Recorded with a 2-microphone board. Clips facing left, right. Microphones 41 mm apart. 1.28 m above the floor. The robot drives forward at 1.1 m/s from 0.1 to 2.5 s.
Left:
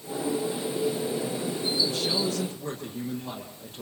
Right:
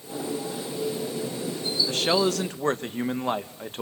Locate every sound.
1.9 s a man speaking: 70° right (ahead or behind), 1.5 m